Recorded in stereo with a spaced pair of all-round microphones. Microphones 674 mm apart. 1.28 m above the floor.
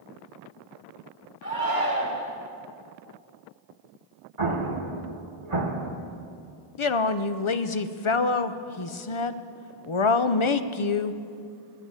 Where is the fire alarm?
No fire alarm in this recording.